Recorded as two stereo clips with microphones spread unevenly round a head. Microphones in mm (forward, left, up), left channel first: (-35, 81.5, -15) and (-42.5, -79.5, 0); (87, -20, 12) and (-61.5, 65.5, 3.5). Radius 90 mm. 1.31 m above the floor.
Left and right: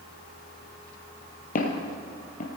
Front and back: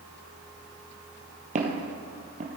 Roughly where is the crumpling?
I don't hear crumpling.